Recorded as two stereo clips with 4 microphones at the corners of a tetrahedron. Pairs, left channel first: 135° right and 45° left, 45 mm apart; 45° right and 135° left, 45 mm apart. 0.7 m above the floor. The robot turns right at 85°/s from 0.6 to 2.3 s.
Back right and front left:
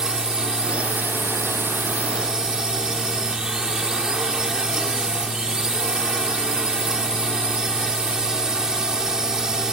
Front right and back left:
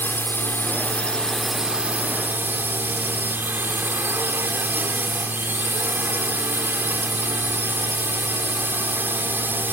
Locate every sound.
0.0 s a drone: 30° right; by 9.7 s 115° left